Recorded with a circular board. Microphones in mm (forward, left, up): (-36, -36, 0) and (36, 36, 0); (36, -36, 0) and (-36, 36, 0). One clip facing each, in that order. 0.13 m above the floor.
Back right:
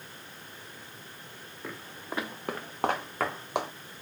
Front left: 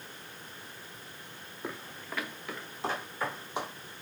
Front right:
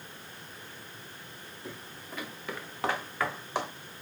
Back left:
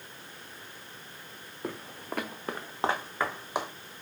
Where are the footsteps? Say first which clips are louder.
Even, back left 8 dB; 120° left, 0.6 m; by 3.7 s 145° right, 1.4 m.